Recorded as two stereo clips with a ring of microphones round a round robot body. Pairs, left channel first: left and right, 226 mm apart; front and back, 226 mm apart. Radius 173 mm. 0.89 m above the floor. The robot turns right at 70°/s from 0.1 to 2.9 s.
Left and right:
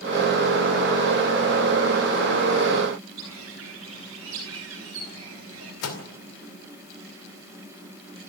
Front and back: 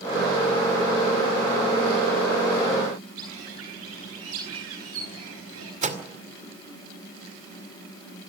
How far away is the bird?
About 4 m.